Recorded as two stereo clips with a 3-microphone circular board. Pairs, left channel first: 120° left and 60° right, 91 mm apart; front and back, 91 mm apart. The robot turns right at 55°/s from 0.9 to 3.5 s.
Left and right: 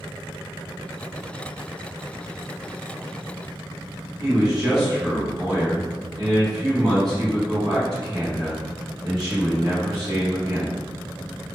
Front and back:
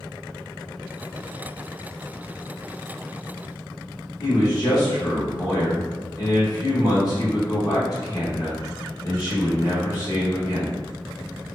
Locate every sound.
4.2 s a man speaking: 35° right, 1.4 m